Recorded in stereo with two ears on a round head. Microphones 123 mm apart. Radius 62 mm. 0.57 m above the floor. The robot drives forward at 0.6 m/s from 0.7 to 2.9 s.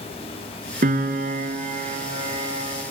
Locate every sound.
0.8 s a piano: 70° right (ahead or behind), 1.5 m; by 2.8 s 40° right (ahead or behind), 2 m